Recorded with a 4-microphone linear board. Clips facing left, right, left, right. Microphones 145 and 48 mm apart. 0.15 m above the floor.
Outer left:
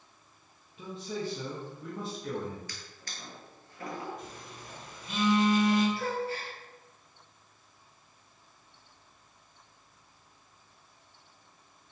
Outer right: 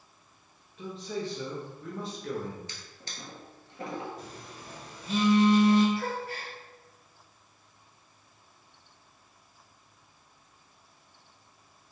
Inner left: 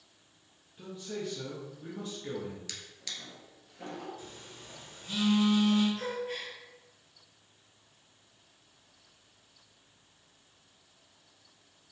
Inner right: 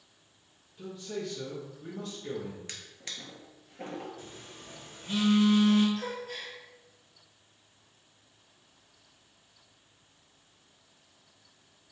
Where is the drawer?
25° right (ahead or behind), 1.0 m.